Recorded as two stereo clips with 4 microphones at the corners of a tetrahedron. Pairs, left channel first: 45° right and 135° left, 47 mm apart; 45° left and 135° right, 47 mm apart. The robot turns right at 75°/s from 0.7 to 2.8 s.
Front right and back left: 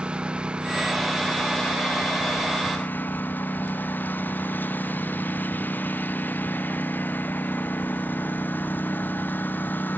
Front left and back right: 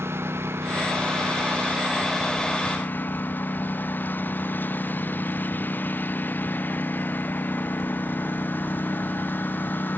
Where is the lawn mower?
160° right; by 10.0 s straight ahead.